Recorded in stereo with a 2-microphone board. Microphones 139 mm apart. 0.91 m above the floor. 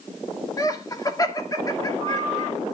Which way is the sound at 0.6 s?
25° left (ahead or behind).